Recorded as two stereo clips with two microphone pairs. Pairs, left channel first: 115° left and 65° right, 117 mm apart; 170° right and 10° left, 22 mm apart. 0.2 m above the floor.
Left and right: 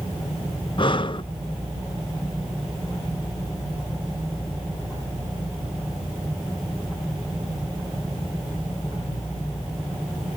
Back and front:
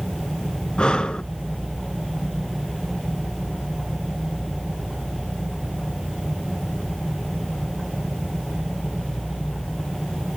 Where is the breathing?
155° left, 0.5 m.